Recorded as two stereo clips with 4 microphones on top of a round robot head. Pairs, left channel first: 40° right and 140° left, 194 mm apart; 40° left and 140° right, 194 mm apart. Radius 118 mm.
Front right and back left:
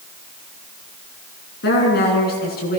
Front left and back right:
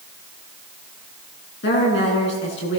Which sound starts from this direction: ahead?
A woman speaking, at 1.6 s.